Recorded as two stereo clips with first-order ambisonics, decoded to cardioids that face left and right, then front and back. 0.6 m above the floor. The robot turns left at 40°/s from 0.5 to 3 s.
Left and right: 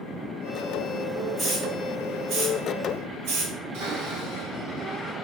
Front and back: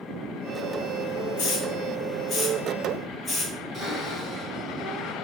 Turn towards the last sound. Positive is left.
turn(degrees=-110)